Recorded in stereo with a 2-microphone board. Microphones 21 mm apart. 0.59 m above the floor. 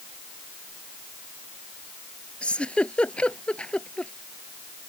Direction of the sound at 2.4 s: 60° left (ahead or behind).